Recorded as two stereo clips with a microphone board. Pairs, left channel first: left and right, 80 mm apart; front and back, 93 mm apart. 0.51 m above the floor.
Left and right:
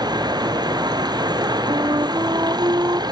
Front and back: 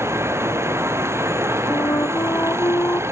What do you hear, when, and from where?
0.0 s running water: 115° right
1.7 s a flute: 55° right